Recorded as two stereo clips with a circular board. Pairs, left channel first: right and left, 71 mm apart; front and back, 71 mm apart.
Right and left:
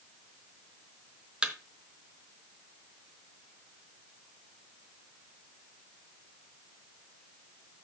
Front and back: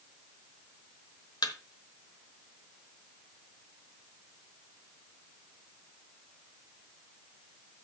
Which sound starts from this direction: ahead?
A thud, at 1.4 s.